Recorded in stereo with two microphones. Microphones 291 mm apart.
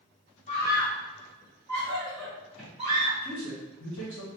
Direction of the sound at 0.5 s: 25° left (ahead or behind).